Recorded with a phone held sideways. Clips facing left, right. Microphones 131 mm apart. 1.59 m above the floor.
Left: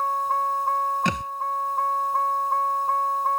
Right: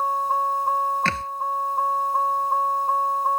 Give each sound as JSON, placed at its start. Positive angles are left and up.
{"t": 0.0, "sound": "a vehicle", "side_deg": -10}
{"t": 1.1, "sound": "a thud", "side_deg": 15}